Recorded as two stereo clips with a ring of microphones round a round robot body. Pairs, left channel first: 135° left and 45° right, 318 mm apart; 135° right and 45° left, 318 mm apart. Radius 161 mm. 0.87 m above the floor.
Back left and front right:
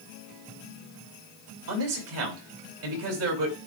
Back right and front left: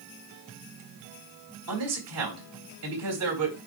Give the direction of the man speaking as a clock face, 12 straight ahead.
12 o'clock.